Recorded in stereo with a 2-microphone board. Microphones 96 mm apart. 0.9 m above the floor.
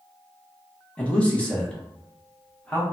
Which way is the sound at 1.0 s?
15° left (ahead or behind).